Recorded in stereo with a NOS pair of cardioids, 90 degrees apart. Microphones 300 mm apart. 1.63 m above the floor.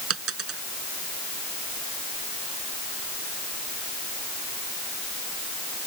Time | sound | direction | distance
0.1 | a dropped coin | 50° right | ?